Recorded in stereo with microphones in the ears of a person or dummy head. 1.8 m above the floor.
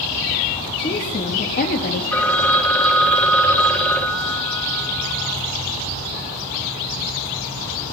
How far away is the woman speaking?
About 2 m.